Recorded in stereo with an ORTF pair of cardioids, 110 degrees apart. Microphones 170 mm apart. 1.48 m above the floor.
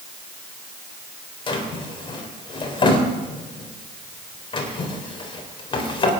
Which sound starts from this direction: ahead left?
A drawer, at 1.5 s.